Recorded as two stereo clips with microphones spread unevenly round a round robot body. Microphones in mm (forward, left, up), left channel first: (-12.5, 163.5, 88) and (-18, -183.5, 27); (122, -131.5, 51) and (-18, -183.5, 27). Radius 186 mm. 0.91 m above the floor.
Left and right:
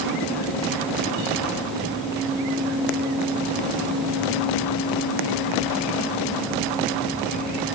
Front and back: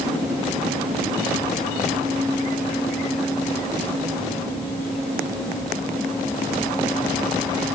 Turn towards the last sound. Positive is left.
No sound to turn to.